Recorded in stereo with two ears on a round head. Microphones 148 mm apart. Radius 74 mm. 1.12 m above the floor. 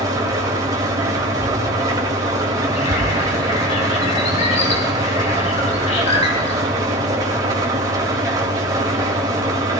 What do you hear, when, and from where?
0.0 s an engine running: 20° right (ahead or behind), 3 m
2.7 s a bird: 40° left (ahead or behind), 4.5 m